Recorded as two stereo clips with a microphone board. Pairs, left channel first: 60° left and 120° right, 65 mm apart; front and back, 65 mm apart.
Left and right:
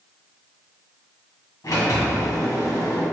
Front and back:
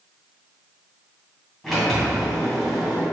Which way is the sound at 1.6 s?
90° left.